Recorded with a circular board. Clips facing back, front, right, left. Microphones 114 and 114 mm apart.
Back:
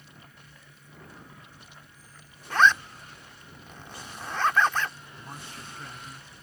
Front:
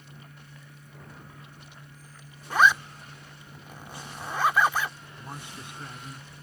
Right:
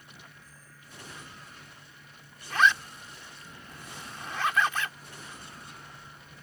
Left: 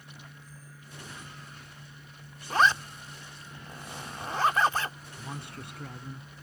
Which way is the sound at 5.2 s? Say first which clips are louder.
Front 2 dB, left 7 dB; 75° left.